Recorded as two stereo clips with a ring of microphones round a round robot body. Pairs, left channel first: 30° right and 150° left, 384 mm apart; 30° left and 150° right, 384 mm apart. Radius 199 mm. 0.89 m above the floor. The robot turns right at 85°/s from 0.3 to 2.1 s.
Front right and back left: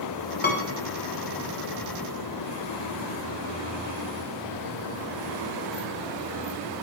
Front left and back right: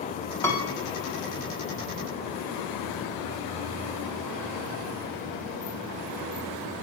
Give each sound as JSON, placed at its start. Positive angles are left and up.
{"t": 0.4, "sound": "a piano", "azimuth_deg": -45, "distance_m": 0.9}